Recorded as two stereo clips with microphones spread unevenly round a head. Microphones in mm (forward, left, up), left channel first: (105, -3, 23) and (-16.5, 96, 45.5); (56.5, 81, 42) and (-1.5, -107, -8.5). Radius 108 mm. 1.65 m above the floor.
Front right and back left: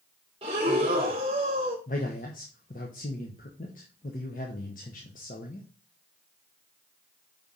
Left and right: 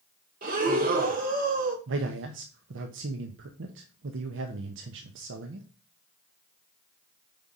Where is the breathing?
165° right, 0.9 m.